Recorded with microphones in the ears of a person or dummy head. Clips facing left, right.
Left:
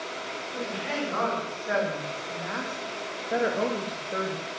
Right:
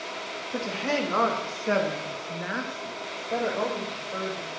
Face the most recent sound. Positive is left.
turn(degrees=40)  # may be behind; listen again after turning